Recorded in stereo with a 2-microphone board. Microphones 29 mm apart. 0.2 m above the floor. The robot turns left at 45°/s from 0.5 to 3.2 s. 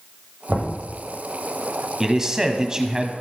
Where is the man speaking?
20° right (ahead or behind), 1.2 m; by 3.1 s 25° right (ahead or behind), 1.2 m.